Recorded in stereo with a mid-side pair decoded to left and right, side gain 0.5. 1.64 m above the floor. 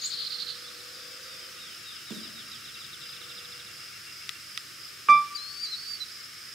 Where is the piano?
25° right, 0.6 m.